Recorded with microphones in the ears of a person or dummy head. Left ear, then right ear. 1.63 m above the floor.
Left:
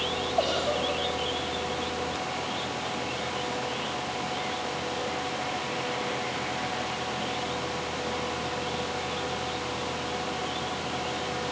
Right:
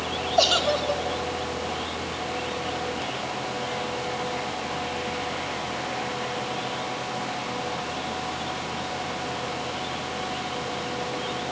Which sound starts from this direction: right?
A giggle, at 0.4 s.